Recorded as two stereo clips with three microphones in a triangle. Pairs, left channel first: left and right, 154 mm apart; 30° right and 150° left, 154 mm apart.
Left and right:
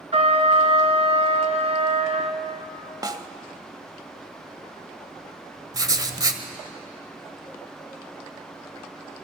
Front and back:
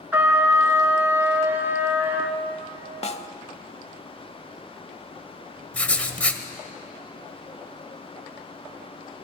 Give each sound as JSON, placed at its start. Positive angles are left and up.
{"t": 0.1, "sound": "a trumpet", "azimuth_deg": -135, "distance_m": 2.0}
{"t": 3.0, "sound": "a snare drum", "azimuth_deg": -40, "distance_m": 0.9}
{"t": 5.7, "sound": "writing", "azimuth_deg": -100, "distance_m": 1.5}